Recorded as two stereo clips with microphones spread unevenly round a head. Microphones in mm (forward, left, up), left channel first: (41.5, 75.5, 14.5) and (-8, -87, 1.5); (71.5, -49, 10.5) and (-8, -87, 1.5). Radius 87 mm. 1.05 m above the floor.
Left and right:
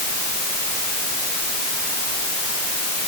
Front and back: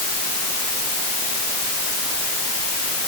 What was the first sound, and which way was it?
Only background noise.